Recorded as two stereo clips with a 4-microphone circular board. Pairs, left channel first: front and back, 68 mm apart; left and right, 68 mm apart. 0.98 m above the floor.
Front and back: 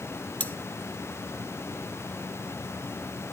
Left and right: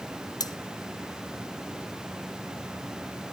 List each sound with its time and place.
0.4 s cutlery clinking: 70° left, 0.7 m